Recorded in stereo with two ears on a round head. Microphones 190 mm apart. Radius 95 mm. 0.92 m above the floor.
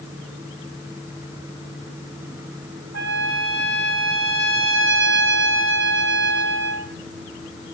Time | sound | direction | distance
2.9 | a trumpet | 70° right (ahead or behind) | 2.5 m